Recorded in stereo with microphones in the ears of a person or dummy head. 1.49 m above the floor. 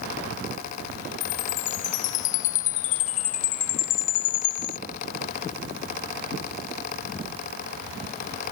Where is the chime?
45° left (ahead or behind).